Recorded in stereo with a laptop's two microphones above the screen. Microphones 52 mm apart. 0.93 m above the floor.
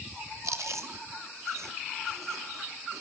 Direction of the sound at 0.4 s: 75° right (ahead or behind).